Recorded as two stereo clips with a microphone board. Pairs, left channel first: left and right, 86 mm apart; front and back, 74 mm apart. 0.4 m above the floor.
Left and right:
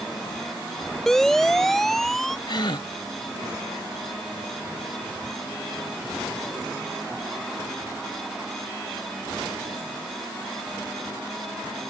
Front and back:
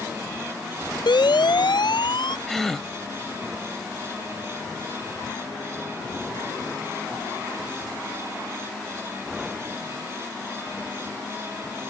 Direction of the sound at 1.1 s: 5° left.